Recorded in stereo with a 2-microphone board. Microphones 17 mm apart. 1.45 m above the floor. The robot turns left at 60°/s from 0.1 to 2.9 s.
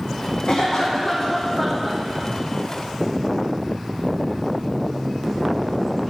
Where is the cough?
65° left, 0.5 m; by 2.0 s 25° right, 0.5 m.